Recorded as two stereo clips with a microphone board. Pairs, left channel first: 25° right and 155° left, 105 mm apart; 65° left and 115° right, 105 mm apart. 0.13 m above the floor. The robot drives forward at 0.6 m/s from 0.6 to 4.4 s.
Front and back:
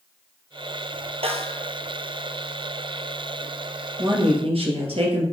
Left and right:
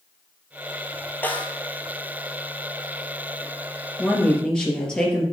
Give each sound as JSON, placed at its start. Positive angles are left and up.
{"t": 1.2, "sound": "a snare drum", "azimuth_deg": 140, "distance_m": 0.9}
{"t": 4.0, "sound": "a woman speaking", "azimuth_deg": 145, "distance_m": 2.5}